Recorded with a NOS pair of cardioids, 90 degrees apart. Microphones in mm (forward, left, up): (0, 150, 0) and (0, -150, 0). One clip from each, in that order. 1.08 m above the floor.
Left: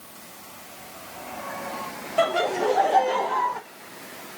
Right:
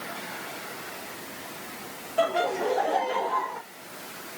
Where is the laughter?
30° left, 0.9 m.